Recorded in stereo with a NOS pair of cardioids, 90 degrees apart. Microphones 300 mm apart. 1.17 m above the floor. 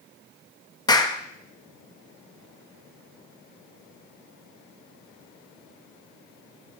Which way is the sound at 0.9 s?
15° left.